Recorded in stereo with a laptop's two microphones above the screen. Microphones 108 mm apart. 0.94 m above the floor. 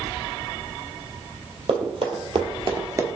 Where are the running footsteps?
65° right (ahead or behind), 2 m; by 3.1 s 25° right (ahead or behind), 1.0 m.